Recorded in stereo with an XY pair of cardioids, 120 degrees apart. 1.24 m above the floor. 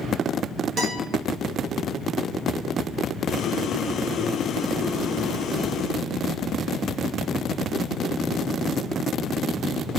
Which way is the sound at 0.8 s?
45° right.